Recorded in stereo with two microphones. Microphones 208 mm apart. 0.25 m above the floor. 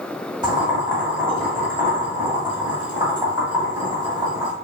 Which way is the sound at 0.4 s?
20° right (ahead or behind).